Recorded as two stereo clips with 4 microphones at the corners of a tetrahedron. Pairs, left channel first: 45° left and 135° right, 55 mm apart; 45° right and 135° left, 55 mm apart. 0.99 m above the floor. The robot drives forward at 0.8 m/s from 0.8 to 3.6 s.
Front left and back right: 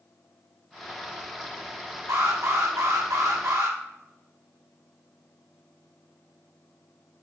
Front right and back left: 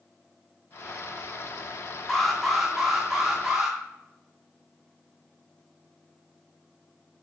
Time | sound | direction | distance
2.1 | an alarm | 130° right | 2.5 m